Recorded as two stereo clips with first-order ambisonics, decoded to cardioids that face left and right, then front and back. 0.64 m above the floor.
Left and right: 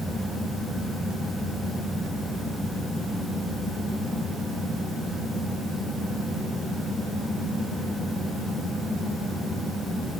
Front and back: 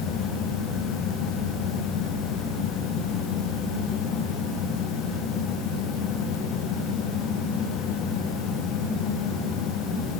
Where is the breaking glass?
No breaking glass in this recording.